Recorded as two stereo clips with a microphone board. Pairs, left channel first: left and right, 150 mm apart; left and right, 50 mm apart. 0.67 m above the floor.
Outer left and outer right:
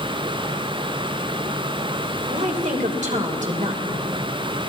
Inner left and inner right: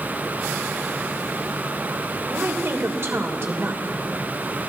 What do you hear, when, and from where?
2.3 s a woman speaking: 55° right (ahead or behind), 3 m